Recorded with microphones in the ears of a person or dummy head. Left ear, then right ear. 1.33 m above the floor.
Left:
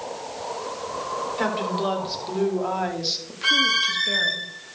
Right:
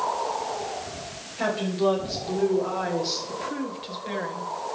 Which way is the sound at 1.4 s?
40° left (ahead or behind).